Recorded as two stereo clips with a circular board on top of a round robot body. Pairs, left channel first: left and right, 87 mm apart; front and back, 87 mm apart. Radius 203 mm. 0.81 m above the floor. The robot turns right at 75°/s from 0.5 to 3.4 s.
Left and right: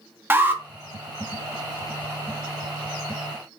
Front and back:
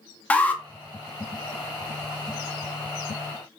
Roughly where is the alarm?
Ahead right.